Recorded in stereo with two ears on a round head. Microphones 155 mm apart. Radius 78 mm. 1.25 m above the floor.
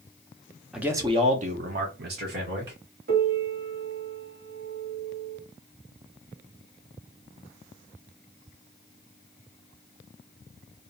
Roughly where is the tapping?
I don't hear tapping.